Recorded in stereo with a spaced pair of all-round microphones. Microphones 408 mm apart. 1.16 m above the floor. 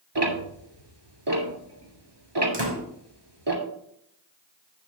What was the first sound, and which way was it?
Ticking, 85° right.